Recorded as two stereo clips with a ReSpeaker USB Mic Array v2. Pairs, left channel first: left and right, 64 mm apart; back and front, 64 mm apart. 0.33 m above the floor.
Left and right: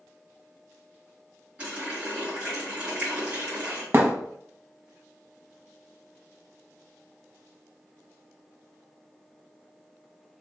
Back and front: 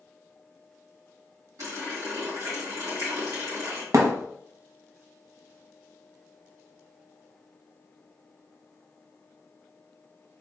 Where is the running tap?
30° right, 1.9 m.